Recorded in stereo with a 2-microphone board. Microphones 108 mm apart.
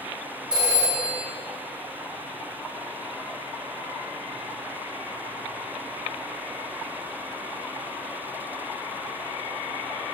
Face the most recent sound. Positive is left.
turn(degrees=-10)  # may be behind; listen again after turning